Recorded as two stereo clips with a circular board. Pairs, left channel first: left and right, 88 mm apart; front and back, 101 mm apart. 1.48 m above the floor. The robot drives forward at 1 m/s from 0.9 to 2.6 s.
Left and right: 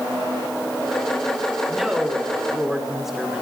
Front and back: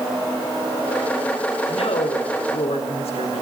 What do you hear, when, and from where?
1.7 s a woman speaking: 5° right, 5 m